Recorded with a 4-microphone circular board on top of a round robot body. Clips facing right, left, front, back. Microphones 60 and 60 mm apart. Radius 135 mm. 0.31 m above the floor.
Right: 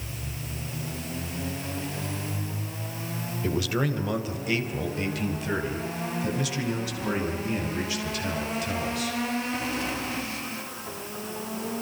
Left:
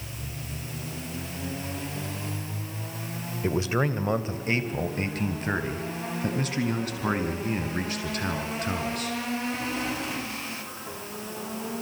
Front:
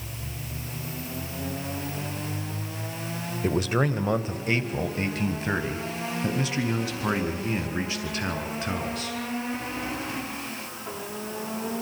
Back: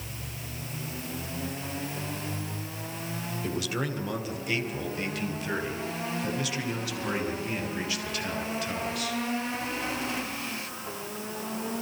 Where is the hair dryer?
I don't hear a hair dryer.